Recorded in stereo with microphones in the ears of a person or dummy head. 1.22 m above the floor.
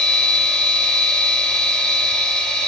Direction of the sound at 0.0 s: 5° left (ahead or behind).